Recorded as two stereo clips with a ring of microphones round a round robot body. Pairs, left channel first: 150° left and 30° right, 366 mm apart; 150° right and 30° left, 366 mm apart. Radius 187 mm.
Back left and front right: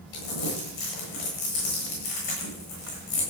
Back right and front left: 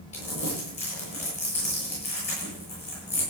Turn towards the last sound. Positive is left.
turn(degrees=135)